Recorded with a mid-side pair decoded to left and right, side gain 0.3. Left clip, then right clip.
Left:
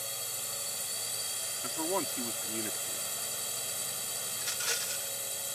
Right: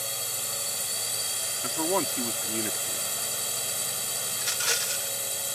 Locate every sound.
0.0 s a drone: 60° right
1.6 s a man speaking: 60° right
4.3 s a rattle: 65° right